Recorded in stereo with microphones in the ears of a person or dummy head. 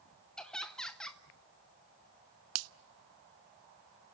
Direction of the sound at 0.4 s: 5° left (ahead or behind).